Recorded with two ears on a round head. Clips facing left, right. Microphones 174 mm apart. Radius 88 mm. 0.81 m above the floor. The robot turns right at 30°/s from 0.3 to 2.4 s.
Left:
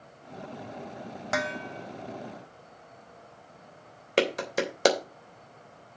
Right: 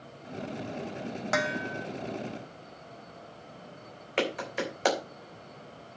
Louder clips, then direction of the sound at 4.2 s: Left 4 dB; 50° left (ahead or behind).